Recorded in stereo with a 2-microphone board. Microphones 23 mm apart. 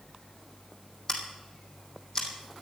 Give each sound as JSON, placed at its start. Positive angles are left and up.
{"t": 1.1, "sound": "scissors", "side_deg": 30, "distance_m": 3.0}